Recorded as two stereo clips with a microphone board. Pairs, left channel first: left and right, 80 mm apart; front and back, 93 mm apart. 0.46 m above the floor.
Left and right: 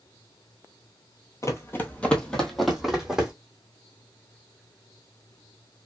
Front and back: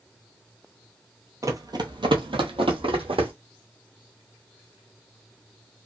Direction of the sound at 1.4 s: 130° left.